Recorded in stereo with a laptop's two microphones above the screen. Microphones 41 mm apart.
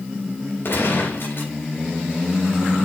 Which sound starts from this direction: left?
A gunshot, at 0.7 s.